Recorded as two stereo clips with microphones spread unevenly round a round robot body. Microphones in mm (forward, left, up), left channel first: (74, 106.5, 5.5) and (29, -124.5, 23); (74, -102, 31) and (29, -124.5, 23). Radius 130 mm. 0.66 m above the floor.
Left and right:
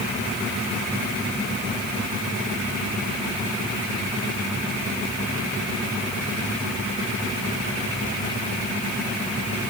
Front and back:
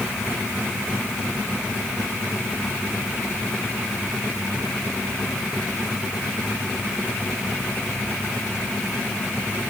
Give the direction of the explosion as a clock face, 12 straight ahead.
No explosion in this recording.